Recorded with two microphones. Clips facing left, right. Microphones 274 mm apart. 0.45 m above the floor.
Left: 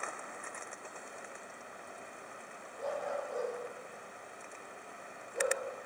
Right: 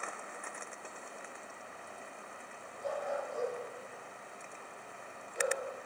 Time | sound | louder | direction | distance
2.8 | a dog barking | even | 70° left (ahead or behind) | 7.5 m